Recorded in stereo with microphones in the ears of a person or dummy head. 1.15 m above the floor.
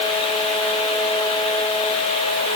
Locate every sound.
Only background noise.